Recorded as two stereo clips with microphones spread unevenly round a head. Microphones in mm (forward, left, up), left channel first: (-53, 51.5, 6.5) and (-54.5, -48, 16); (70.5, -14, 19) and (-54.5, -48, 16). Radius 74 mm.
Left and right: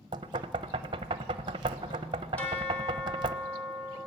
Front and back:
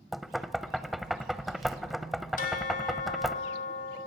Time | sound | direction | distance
0.1 | knocking | 75° right | 0.6 m
2.4 | a bell | 5° left | 0.8 m